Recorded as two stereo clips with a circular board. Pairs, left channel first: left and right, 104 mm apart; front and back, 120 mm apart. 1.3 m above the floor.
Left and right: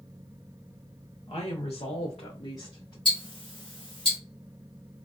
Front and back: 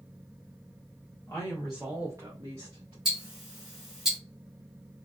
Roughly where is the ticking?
Left.